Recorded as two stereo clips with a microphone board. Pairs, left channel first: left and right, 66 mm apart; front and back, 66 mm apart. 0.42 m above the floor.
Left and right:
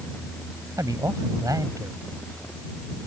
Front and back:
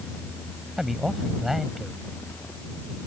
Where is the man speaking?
95° right.